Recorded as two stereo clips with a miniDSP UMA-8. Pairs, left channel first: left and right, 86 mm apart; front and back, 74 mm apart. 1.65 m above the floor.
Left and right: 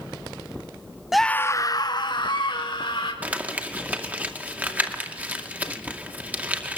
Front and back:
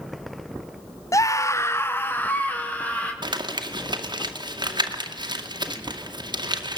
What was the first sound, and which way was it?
A scream, 10° right.